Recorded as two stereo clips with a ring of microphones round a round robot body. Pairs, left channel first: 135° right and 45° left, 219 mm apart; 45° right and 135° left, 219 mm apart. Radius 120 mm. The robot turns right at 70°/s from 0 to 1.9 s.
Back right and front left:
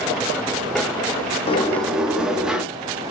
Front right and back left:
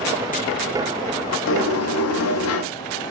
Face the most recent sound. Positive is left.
turn(degrees=-40)